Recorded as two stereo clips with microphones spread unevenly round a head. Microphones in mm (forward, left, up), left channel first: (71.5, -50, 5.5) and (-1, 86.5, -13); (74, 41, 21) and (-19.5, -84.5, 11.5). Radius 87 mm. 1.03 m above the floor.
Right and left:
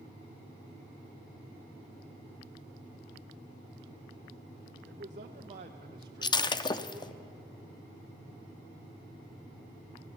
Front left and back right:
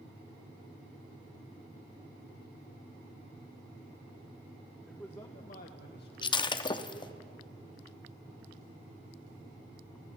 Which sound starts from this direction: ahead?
Breaking glass, at 6.2 s.